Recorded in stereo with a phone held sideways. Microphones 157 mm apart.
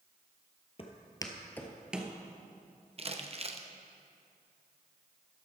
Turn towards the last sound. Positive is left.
turn(degrees=-40)  # may be behind; listen again after turning